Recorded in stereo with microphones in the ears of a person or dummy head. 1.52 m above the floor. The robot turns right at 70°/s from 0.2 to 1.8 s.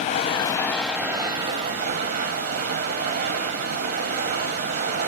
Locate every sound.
0.0 s running water: 130° left, 0.7 m; by 5.1 s 115° right, 0.7 m